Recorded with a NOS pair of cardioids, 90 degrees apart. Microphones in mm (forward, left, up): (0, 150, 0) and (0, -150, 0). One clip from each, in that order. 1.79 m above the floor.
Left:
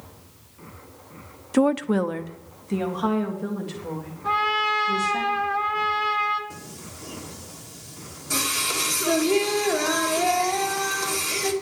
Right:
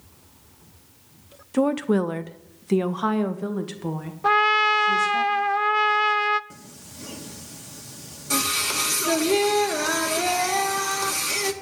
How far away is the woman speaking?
About 0.7 m.